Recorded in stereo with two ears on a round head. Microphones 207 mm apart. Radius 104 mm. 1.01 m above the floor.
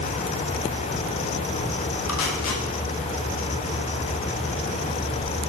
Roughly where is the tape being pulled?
Left.